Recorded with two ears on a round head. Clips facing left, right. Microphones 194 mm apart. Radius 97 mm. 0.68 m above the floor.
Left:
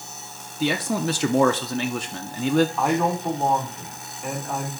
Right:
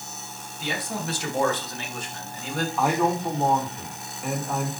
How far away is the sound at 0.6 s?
About 0.9 m.